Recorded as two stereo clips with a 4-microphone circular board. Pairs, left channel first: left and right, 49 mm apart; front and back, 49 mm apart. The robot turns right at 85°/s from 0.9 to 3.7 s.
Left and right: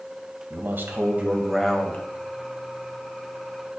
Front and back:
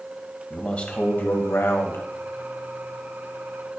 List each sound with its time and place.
0.5 s a man speaking: 60° right, 1.9 m; by 2.0 s 40° left, 1.9 m